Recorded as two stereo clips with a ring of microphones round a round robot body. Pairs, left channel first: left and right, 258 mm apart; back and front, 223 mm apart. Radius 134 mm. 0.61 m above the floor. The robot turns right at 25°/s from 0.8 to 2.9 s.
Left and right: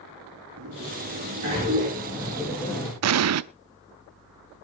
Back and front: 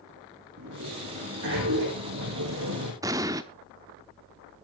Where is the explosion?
75° right, 0.7 m.